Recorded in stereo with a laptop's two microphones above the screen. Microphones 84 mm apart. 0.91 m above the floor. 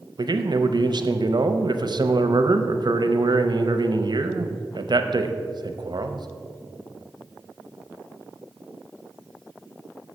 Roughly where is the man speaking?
Right.